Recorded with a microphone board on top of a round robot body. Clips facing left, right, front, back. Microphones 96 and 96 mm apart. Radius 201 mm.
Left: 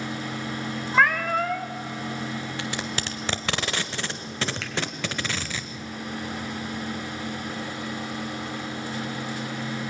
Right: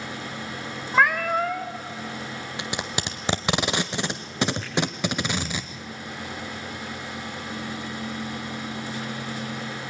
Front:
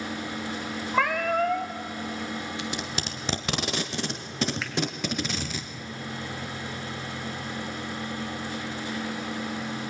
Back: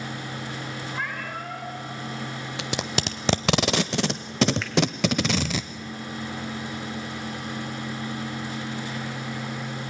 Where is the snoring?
I don't hear snoring.